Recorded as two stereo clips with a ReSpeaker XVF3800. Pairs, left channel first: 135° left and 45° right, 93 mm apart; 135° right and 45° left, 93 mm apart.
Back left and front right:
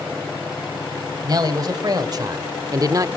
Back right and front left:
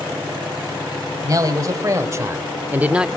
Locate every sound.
1.2 s a man speaking: straight ahead, 2.5 m; by 3.1 s 35° right, 0.9 m